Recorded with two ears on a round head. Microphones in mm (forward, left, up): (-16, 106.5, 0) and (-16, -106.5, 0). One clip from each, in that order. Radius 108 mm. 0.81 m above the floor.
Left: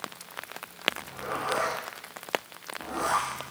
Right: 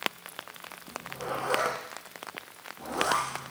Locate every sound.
0.9 s a zipper: 80° right, 4 m